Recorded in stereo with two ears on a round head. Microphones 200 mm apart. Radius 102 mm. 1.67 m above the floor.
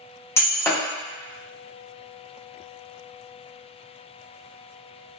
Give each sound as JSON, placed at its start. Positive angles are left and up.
{"t": 0.4, "sound": "breaking glass", "side_deg": 10, "distance_m": 0.8}